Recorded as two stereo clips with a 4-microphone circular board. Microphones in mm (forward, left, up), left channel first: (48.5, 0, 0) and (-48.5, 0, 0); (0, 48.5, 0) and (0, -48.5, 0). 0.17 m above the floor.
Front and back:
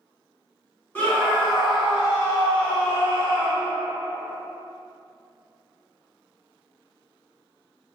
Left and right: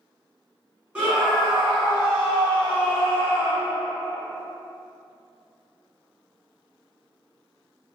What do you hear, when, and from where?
0.9 s a scream: 40° right, 1.1 m; by 3.7 s 145° left, 1.4 m